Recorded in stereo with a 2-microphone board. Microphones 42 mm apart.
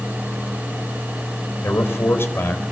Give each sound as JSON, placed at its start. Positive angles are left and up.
{"t": 1.6, "sound": "a man speaking", "side_deg": 70, "distance_m": 4.5}